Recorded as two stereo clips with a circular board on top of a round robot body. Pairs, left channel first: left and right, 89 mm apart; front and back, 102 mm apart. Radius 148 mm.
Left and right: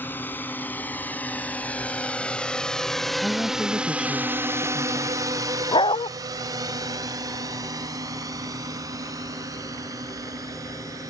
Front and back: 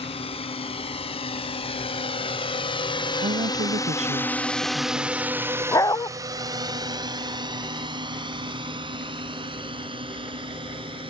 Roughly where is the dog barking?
Ahead left.